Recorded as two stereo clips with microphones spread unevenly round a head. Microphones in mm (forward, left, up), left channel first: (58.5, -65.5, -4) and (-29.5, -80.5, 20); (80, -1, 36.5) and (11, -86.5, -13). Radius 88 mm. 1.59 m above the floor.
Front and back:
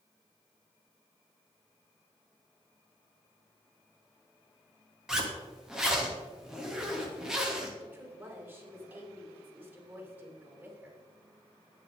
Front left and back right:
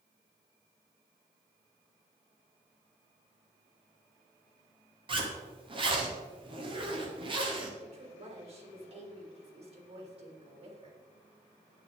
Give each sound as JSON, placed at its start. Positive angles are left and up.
{"t": 5.1, "sound": "a zipper", "azimuth_deg": -85, "distance_m": 3.0}
{"t": 7.8, "sound": "a woman speaking", "azimuth_deg": -100, "distance_m": 5.5}